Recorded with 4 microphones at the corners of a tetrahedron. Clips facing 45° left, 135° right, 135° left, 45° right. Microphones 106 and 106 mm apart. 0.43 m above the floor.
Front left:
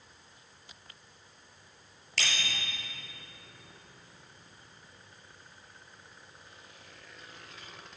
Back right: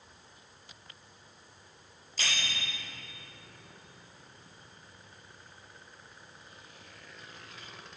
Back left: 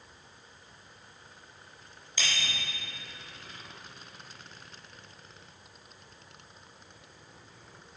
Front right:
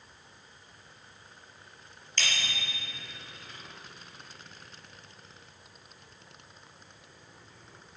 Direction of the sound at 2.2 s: 55° left.